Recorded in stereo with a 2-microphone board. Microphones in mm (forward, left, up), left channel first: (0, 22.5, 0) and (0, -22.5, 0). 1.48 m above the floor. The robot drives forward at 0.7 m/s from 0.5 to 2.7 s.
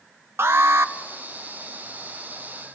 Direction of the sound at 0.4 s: 60° right (ahead or behind).